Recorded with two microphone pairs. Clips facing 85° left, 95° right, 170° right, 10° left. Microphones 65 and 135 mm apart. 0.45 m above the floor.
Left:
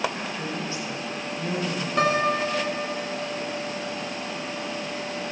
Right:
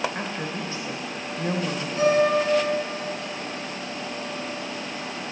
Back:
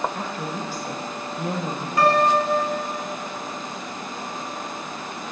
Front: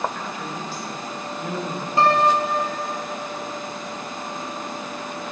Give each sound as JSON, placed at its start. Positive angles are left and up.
{"t": 0.1, "sound": "a woman speaking", "azimuth_deg": -140, "distance_m": 1.9}
{"t": 2.0, "sound": "a piano", "azimuth_deg": 70, "distance_m": 1.4}